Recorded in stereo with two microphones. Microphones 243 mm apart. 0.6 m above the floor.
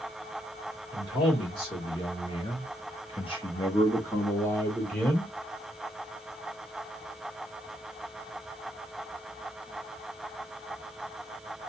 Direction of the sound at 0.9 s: 15° left (ahead or behind).